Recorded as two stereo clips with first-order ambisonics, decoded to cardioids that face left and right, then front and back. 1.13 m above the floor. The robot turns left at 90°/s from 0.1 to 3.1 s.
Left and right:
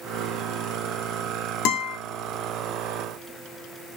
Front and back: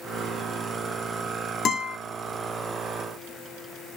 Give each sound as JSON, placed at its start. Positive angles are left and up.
{"t": 1.6, "sound": "a guitar", "azimuth_deg": 60, "distance_m": 2.5}